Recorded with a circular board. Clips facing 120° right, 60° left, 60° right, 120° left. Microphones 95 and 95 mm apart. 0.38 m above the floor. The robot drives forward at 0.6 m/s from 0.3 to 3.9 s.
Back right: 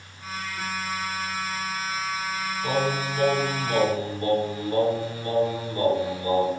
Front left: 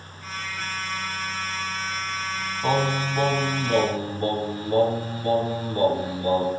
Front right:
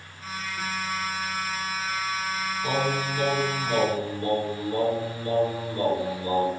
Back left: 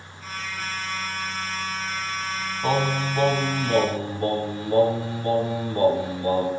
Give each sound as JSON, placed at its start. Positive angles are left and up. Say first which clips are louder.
{"t": 2.6, "sound": "singing", "louder": "front left 3 dB, back left 4 dB", "azimuth_deg": 95, "distance_m": 1.8}